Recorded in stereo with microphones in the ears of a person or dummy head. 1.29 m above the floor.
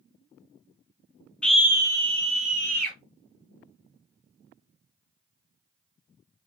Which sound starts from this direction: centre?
A scream, at 1.4 s.